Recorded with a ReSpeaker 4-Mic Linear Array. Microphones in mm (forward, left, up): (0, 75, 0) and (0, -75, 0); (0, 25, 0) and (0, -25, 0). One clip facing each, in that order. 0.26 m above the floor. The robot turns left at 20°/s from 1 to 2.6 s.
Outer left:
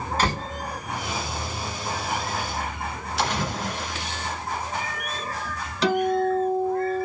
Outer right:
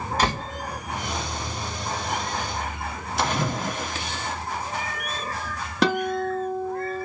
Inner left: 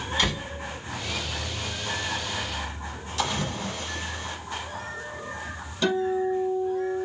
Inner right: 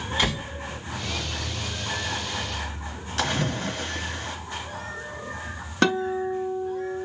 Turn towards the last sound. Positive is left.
turn(degrees=-60)  # may be behind; listen again after turning